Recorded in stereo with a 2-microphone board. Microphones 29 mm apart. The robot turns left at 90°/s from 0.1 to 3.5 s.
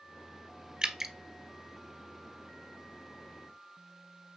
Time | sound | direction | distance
0.8 | dripping | 25° right (ahead or behind) | 0.7 m